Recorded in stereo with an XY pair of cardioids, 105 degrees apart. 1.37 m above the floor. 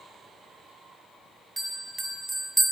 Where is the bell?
15° right, 0.6 m.